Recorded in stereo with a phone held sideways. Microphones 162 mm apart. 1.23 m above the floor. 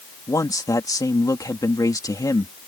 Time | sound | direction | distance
0.3 | a man speaking | 20° left (ahead or behind) | ?